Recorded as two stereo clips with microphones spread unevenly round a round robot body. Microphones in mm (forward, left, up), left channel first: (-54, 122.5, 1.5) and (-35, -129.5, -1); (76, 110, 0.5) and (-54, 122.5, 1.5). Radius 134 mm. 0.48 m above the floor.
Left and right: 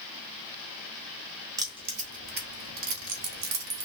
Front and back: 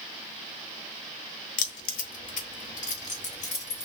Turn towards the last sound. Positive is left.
turn(degrees=-65)